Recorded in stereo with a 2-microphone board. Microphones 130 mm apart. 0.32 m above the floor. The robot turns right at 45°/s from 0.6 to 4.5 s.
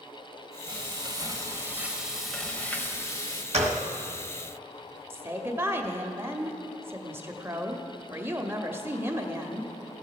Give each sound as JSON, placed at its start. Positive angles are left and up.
{"t": 0.7, "sound": "frying", "azimuth_deg": -70, "distance_m": 1.0}
{"t": 3.5, "sound": "a gunshot", "side_deg": -55, "distance_m": 1.1}
{"t": 5.1, "sound": "a woman speaking", "side_deg": -20, "distance_m": 0.8}